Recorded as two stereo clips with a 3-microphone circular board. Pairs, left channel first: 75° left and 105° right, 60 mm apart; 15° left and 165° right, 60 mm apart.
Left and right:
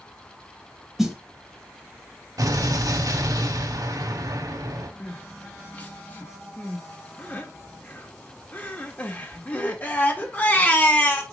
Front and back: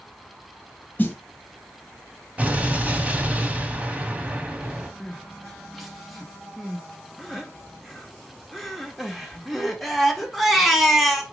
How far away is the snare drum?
About 1.0 m.